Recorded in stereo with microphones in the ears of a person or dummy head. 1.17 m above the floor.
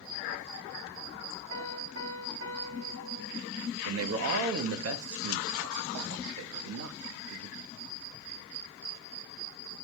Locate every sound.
1.5 s a piano: 70° right (ahead or behind), 1.9 m
3.9 s a man speaking: 80° right, 0.9 m